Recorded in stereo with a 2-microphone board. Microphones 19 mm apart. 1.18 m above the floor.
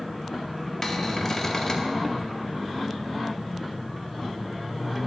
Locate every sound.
0.8 s a cupboard door: 35° left (ahead or behind), 0.7 m